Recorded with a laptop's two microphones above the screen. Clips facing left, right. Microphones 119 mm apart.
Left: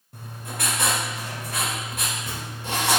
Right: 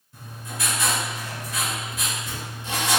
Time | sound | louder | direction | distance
0.1 | writing | left 1 dB | 55° left (ahead or behind) | 1.0 m